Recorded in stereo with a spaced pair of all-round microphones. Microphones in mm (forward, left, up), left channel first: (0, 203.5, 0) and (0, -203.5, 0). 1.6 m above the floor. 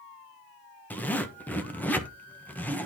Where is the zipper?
5° left (ahead or behind), 1.1 m.